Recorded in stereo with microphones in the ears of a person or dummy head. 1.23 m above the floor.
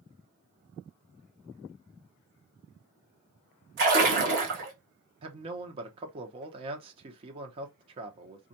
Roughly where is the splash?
Right.